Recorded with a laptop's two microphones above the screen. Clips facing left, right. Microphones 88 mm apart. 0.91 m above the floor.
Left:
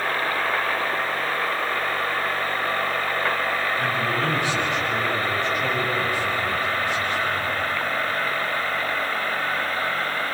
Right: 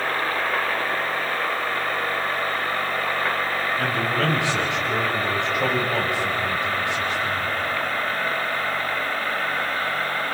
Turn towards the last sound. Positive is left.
turn(degrees=-85)